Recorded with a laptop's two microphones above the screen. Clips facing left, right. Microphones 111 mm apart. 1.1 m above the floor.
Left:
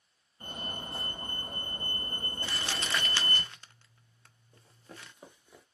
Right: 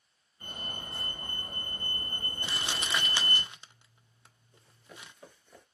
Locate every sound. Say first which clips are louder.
0.4 s a fire alarm: left 2 dB; 40° left (ahead or behind), 3 m
2.4 s crumpling: even; 15° right (ahead or behind), 0.5 m
4.5 s running footsteps: left 2 dB; 40° left (ahead or behind), 1.5 m; by 5.7 s 5° left (ahead or behind), 1.1 m